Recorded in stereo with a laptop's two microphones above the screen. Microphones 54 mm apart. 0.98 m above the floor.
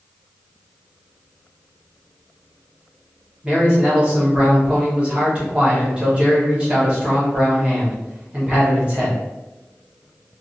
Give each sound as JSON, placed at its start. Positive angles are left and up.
{"t": 3.4, "sound": "a man speaking", "side_deg": -20, "distance_m": 1.0}